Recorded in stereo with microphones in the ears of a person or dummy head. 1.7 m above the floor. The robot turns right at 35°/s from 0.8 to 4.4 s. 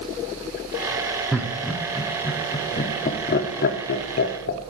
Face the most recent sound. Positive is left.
turn(degrees=40)  # may be behind; listen again after turning